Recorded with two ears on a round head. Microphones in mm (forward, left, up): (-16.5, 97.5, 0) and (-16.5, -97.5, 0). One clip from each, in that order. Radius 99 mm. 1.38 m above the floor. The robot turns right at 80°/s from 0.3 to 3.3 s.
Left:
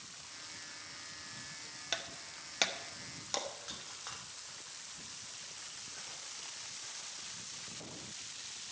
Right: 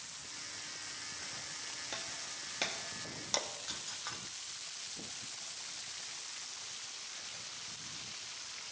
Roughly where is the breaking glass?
Left.